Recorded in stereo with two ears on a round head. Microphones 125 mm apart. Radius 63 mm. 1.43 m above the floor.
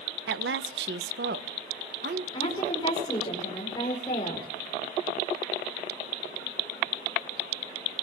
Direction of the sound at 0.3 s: 85° right.